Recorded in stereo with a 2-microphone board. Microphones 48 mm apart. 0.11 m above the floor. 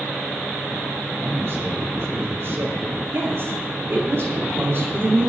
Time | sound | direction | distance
1.2 | a man speaking | 60° right (ahead or behind) | 8 m
3.1 | a woman speaking | 55° right (ahead or behind) | 6 m